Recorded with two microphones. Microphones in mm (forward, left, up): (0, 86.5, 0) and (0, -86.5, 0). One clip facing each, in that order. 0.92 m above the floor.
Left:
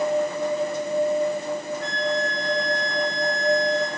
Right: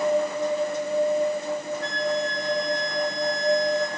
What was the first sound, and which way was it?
A flute, centre (ahead or behind).